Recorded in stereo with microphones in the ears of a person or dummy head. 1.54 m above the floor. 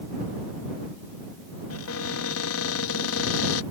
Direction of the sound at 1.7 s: 85° left.